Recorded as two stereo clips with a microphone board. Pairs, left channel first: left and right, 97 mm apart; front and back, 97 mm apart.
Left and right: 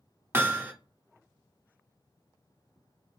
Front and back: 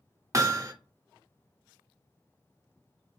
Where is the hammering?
145° right, 0.5 m.